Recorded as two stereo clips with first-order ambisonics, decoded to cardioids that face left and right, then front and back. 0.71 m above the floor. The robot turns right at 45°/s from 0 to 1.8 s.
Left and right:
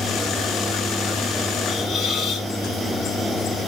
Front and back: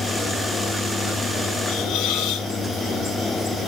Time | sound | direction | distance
1.7 | a hiss | 15° left | 4.5 m